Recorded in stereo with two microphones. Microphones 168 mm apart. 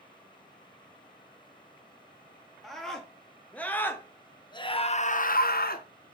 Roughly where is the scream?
Centre.